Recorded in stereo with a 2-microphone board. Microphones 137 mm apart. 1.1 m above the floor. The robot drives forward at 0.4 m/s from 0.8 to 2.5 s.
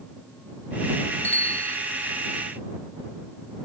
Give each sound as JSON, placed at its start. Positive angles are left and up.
{"t": 1.2, "sound": "a bicycle bell", "side_deg": 55}